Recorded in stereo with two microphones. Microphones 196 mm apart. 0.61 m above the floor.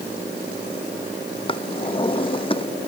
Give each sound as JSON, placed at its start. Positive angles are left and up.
{"t": 1.5, "sound": "a drawer", "side_deg": 25}